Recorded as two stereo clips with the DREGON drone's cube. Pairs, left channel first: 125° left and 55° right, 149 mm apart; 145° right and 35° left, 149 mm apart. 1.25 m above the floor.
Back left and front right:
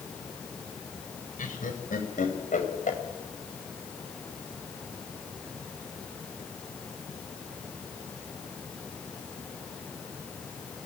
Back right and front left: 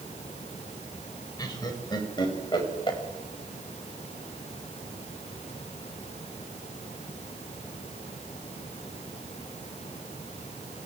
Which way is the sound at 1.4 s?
150° left.